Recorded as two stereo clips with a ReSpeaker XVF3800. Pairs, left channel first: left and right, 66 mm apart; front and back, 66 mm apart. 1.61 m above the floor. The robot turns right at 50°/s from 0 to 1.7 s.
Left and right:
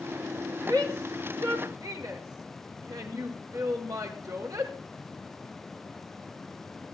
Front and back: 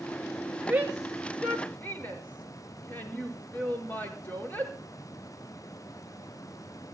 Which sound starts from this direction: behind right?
A shout, at 0.7 s.